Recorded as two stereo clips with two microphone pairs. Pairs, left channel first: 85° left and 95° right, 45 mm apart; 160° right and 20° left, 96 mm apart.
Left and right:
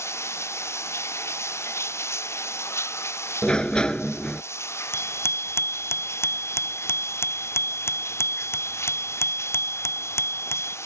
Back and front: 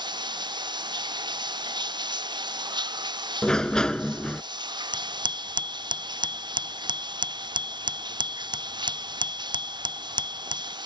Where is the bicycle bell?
60° left.